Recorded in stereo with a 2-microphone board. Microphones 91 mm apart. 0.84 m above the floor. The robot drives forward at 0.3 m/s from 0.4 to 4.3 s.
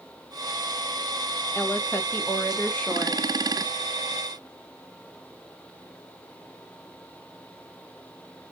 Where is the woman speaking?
20° left (ahead or behind), 0.6 m; by 3.2 s 15° left (ahead or behind), 0.9 m.